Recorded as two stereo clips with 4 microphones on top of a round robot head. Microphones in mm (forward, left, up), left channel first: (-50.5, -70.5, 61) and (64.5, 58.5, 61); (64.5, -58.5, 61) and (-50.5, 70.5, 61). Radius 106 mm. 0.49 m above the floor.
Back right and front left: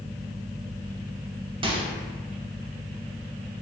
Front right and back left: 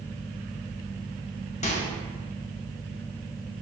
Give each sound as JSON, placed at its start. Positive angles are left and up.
{"t": 1.6, "sound": "a microwave", "azimuth_deg": -5, "distance_m": 0.9}